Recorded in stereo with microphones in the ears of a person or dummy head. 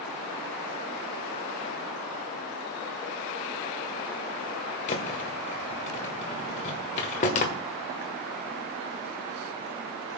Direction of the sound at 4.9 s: 35° left (ahead or behind).